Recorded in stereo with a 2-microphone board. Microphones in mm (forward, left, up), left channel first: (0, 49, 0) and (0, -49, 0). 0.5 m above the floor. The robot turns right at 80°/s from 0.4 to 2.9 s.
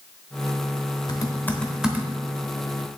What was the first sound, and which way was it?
Typing on a keyboard, 50° left (ahead or behind).